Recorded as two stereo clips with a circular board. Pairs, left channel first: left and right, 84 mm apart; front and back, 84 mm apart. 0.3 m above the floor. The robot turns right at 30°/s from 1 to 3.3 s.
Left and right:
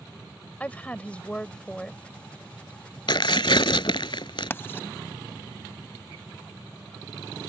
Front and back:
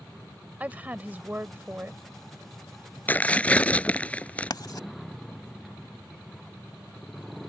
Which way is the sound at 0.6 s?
140° left.